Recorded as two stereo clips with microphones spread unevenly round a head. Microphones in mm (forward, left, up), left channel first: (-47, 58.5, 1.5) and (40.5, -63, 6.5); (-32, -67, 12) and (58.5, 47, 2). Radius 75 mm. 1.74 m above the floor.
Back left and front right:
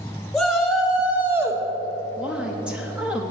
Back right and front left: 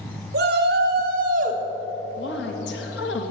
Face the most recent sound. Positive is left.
turn(degrees=-140)